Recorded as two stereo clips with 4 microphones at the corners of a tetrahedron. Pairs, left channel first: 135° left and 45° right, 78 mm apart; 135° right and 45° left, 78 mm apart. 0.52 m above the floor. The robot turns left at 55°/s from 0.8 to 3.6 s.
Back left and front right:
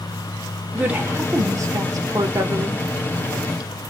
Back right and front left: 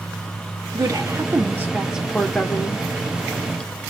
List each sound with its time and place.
0.7 s a woman speaking: 25° left, 1.2 m; by 2.9 s 85° right, 1.2 m